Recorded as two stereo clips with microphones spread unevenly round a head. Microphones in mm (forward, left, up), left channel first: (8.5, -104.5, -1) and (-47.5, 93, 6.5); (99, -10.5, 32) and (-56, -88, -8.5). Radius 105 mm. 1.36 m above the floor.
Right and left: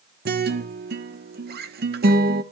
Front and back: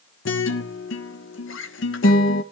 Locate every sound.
0.2 s a guitar: 55° left, 1.1 m